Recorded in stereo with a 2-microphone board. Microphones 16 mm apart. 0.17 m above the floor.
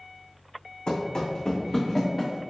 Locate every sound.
0.9 s running footsteps: 60° left (ahead or behind), 0.7 m; by 2.4 s 10° left (ahead or behind), 1.2 m